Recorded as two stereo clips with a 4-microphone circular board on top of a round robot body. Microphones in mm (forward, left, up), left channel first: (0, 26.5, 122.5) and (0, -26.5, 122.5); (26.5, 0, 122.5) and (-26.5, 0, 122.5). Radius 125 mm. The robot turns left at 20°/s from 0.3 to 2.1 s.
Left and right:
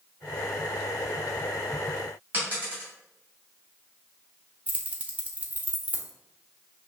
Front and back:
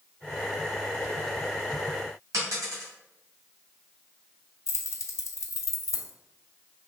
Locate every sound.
2.3 s a dropped coin: 150° right, 1.5 m
4.7 s keys jangling: 30° right, 0.8 m